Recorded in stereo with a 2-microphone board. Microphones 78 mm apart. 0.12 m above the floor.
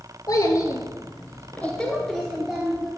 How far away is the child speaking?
About 1.6 m.